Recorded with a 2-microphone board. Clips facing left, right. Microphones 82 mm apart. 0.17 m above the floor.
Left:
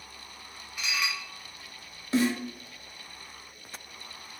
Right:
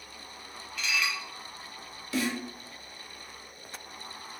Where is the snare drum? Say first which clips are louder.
Left 5 dB; 35° left (ahead or behind), 0.8 m.